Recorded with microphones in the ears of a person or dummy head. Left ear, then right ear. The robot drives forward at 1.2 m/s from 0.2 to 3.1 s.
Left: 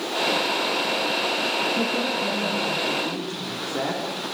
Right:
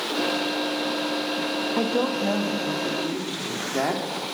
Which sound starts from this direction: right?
A woman speaking, at 1.8 s.